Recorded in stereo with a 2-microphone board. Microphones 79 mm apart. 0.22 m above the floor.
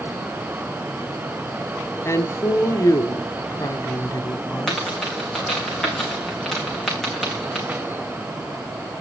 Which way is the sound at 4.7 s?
5° left (ahead or behind).